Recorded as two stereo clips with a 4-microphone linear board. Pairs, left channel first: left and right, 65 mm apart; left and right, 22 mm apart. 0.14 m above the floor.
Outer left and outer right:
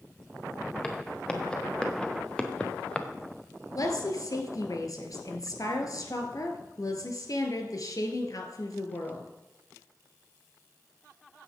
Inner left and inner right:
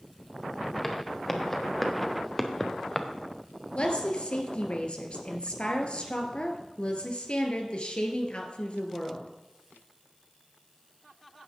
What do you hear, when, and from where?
0.8 s footsteps: 15° left (ahead or behind), 2.5 m
3.8 s a woman speaking: 65° left (ahead or behind), 2 m